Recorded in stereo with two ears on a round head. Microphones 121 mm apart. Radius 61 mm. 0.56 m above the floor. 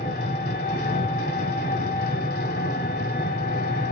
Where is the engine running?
80° left, 1.6 m.